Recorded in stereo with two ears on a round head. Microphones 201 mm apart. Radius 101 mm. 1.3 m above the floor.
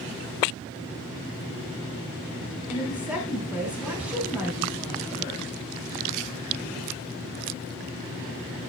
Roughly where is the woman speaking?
Centre.